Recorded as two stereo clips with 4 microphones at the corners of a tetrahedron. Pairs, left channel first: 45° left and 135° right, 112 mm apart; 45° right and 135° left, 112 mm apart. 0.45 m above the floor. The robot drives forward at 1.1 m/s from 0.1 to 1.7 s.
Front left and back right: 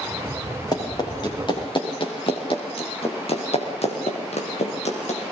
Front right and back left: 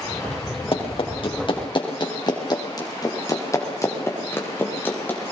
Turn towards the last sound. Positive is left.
turn(degrees=30)